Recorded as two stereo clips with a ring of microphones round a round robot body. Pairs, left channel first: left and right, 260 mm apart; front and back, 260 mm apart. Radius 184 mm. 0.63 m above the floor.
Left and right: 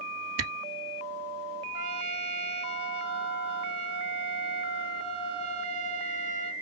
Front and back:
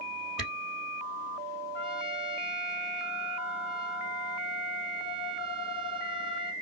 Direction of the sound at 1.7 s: 95° right.